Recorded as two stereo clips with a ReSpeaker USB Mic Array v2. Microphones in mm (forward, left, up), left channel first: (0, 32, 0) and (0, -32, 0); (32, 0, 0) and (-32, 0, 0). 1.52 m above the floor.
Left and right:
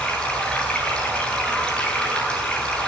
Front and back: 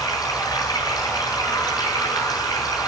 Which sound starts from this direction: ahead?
Running water, at 0.0 s.